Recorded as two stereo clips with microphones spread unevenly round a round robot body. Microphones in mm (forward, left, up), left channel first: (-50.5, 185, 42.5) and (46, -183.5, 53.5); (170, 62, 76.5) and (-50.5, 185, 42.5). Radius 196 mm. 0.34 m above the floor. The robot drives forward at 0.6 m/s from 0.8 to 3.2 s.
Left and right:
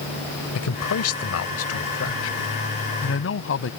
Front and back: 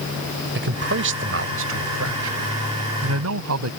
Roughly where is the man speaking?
Behind left.